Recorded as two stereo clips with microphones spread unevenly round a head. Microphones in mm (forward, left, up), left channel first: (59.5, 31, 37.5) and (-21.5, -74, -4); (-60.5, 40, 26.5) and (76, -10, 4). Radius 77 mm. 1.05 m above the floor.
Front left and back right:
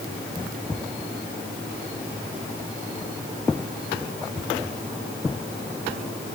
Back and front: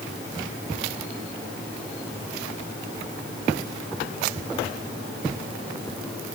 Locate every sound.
Only background noise.